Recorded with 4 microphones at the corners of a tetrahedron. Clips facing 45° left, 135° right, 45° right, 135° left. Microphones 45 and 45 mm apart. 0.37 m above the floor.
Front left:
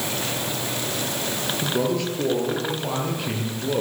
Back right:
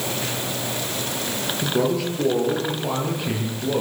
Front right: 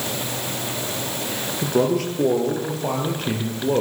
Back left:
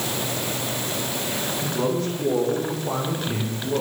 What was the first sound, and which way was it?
A man speaking, 45° right.